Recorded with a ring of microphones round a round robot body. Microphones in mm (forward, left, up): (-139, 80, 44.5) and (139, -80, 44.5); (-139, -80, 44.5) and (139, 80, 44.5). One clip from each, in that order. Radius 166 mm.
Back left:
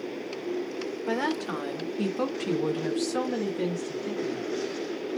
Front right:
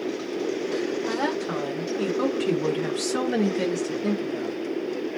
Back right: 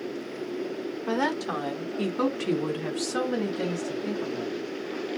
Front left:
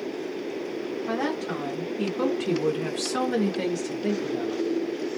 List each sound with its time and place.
1.1 s a woman speaking: 165° right, 1.4 m; by 4.6 s 5° left, 1.4 m